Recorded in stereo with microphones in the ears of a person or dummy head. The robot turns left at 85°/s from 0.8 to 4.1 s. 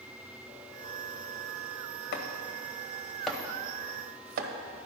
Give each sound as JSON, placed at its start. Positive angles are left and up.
{"t": 2.1, "sound": "chopping", "side_deg": 55, "distance_m": 0.9}